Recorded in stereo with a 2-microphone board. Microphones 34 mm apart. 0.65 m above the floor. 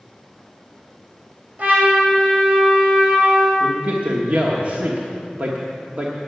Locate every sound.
1.6 s a trumpet: 50° right (ahead or behind), 4 m
3.6 s a man speaking: 50° right (ahead or behind), 1.4 m